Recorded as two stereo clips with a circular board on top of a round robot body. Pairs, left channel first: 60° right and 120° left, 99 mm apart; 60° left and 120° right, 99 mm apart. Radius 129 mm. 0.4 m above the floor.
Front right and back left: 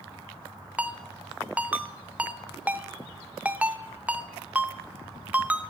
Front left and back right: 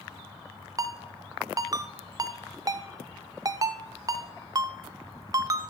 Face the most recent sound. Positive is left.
turn(degrees=-165)